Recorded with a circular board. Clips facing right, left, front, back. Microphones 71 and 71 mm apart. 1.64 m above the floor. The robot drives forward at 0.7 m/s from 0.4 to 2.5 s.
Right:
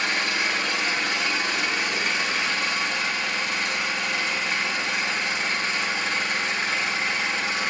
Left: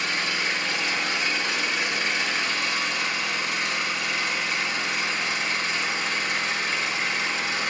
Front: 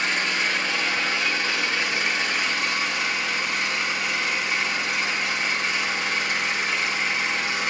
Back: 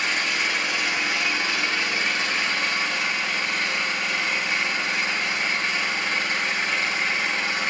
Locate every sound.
0.0 s an engine running: 95° right, 1.8 m; by 7.7 s 135° right, 2.5 m